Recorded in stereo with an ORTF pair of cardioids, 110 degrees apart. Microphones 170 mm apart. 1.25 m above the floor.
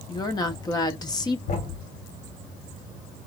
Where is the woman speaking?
25° left, 1.4 m.